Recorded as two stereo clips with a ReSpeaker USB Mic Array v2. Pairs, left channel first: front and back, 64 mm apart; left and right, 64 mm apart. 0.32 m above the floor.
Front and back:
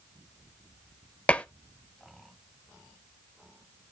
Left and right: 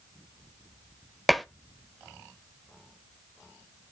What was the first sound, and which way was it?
Dishes clattering, straight ahead.